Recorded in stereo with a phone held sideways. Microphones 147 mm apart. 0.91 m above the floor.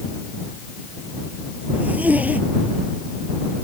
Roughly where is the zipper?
Centre.